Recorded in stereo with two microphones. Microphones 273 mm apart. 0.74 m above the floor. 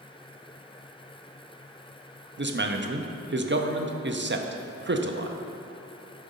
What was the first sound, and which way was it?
A man speaking, 45° right (ahead or behind).